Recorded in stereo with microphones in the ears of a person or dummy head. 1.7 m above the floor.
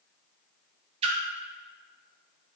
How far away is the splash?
About 0.6 m.